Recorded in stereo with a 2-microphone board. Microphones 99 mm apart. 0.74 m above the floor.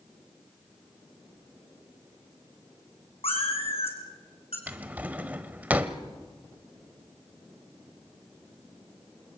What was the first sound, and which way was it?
A cat meowing, 75° left (ahead or behind).